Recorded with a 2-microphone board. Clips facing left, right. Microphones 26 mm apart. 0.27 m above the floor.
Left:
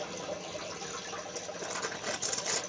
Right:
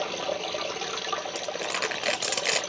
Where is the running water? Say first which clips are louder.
Right 9 dB; 55° right (ahead or behind), 0.8 m.